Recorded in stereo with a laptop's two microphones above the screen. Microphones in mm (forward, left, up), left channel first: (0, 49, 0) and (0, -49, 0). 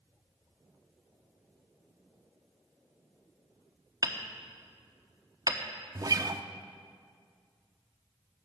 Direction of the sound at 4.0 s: 40° right (ahead or behind).